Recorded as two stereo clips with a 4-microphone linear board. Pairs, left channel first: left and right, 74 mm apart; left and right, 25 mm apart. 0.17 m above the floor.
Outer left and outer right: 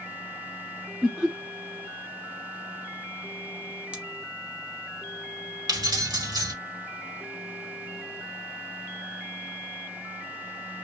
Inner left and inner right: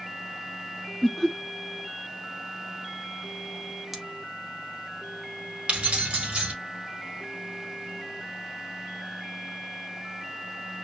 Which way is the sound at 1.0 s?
Centre (ahead or behind).